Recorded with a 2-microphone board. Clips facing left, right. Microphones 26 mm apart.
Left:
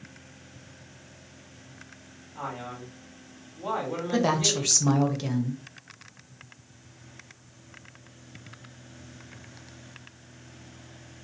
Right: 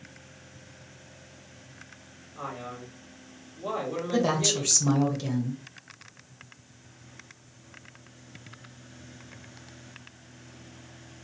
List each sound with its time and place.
2.4 s a man speaking: 70° left (ahead or behind), 3 m
4.1 s a woman speaking: 30° left (ahead or behind), 0.9 m